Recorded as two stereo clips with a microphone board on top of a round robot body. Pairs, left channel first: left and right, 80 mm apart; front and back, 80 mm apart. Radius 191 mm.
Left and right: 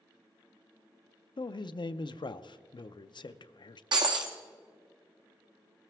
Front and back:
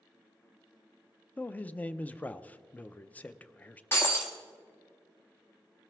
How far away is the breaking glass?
About 0.5 m.